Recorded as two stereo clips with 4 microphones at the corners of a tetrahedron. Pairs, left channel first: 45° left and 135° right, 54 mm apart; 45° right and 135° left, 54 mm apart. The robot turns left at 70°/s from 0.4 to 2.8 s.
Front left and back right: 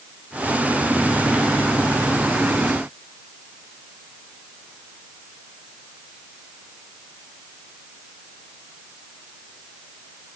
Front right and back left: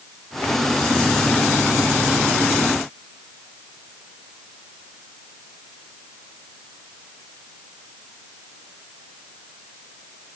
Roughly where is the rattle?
I don't hear a rattle.